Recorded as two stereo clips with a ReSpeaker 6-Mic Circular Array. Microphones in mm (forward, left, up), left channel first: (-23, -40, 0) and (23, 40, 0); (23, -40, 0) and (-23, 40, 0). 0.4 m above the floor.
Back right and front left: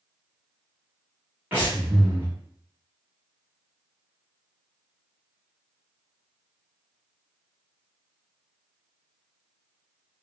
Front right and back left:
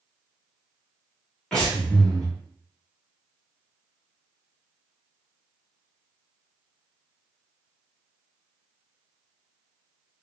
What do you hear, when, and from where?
1.5 s breathing: 15° left, 1.4 m